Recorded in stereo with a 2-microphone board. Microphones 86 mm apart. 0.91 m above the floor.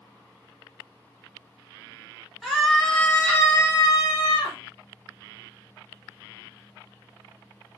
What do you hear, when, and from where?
2.4 s a scream: 5° right (ahead or behind), 1.5 m; by 4.6 s 60° left (ahead or behind), 1.3 m